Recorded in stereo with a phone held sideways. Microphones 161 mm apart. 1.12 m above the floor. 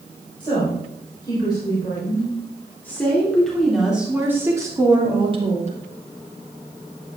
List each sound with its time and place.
0.4 s a woman speaking: 30° left (ahead or behind), 4.5 m; by 5.7 s 40° right (ahead or behind), 2 m